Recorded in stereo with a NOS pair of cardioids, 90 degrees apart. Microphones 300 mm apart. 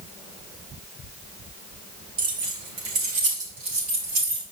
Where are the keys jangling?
65° right, 3 m.